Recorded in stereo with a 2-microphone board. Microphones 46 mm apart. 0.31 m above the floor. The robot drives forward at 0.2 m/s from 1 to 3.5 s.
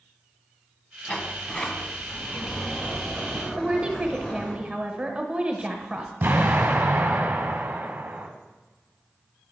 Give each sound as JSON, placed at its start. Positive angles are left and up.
{"t": 1.1, "sound": "a sliding door", "side_deg": 25, "distance_m": 0.7}
{"t": 3.6, "sound": "a woman speaking", "side_deg": -25, "distance_m": 0.9}
{"t": 6.2, "sound": "an explosion", "side_deg": -50, "distance_m": 1.6}